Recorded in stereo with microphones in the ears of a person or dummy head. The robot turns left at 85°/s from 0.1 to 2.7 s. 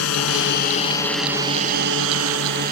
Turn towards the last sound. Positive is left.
turn(degrees=-50)  # may be behind; listen again after turning